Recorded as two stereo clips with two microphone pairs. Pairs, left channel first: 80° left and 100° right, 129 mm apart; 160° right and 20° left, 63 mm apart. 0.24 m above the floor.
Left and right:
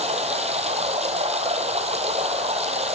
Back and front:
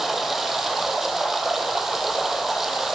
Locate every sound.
0.0 s running water: 65° right, 1.9 m